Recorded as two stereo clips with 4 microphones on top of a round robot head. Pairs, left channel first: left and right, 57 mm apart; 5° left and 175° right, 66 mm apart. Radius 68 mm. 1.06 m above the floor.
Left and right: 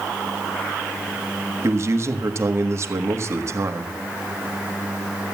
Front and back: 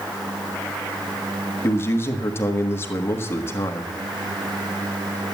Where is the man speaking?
50° right, 1.5 m.